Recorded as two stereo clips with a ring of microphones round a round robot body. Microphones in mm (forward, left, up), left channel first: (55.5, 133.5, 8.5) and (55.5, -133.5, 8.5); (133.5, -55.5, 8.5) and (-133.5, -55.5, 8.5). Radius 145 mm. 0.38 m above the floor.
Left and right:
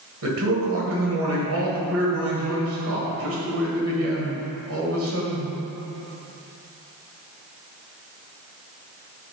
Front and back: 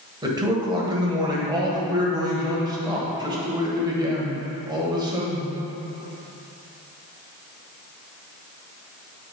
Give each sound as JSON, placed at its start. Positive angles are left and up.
{"t": 0.2, "sound": "a man speaking", "azimuth_deg": -110, "distance_m": 1.5}